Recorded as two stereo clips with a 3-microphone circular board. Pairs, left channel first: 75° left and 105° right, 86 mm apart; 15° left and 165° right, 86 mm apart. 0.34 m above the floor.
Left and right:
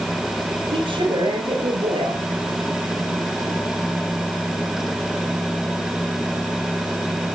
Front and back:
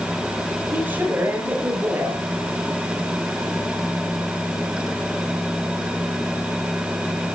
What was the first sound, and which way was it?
A woman speaking, 105° right.